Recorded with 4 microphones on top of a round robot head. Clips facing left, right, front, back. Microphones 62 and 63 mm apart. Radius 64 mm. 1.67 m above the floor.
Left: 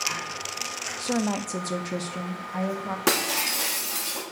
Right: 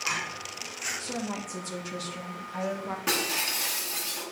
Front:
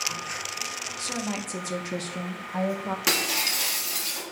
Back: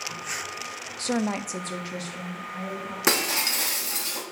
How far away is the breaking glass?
About 1.4 m.